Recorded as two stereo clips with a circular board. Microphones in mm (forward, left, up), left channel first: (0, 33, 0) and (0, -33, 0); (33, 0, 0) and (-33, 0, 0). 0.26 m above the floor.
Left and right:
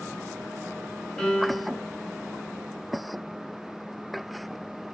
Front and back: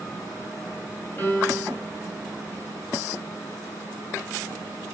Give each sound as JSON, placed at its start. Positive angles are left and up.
{"t": 1.2, "sound": "a piano", "azimuth_deg": 10, "distance_m": 1.6}